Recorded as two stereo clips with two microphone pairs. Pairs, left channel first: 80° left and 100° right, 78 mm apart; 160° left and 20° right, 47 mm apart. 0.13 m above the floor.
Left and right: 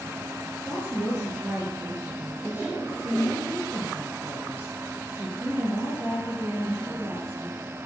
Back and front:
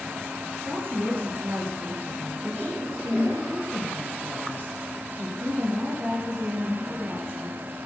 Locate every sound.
0.7 s a woman speaking: 40° right, 2.5 m